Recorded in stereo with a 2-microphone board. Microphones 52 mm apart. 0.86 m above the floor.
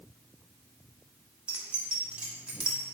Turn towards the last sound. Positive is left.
turn(degrees=-20)  # may be behind; listen again after turning